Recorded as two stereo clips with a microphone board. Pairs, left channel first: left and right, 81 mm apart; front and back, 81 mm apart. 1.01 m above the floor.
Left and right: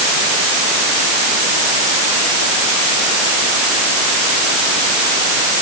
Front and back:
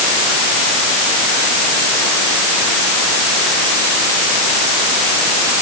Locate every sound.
Only background noise.